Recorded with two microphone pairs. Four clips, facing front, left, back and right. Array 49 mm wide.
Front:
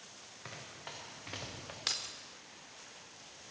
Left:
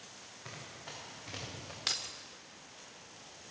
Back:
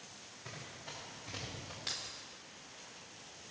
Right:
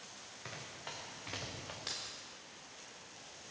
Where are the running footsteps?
45° right, 4.5 m; by 1.8 s 40° right, 3 m.